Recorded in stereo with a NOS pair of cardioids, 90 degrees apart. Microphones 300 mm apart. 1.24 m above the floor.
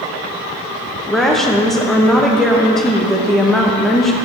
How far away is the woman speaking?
About 0.9 m.